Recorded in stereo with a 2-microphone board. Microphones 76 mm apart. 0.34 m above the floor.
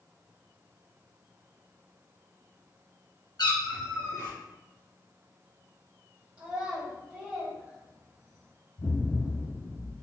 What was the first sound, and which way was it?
A cat meowing, 75° left (ahead or behind).